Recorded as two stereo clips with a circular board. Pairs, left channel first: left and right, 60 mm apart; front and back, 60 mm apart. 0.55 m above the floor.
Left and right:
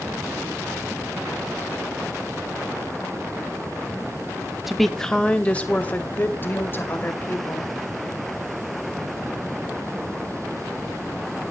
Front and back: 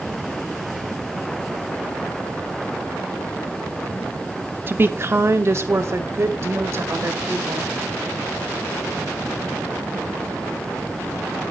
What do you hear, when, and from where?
4.7 s a woman speaking: 175° right, 0.8 m; by 7.7 s 140° left, 2.5 m